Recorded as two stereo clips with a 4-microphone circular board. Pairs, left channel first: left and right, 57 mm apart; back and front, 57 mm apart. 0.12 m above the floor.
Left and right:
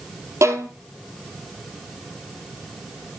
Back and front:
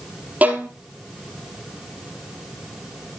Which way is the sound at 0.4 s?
60° right.